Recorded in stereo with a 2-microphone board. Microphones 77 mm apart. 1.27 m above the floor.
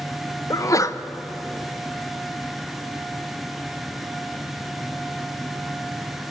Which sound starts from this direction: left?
A sneeze, at 0.5 s.